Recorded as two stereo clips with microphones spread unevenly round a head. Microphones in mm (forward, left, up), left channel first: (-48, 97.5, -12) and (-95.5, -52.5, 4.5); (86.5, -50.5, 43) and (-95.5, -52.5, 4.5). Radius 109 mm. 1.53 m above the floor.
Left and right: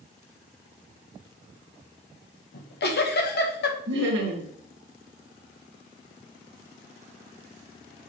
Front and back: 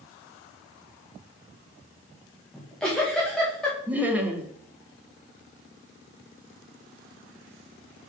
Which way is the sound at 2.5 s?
85° left.